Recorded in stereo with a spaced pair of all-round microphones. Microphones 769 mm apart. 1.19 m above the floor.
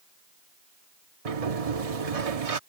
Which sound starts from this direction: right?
A sliding door, at 1.2 s.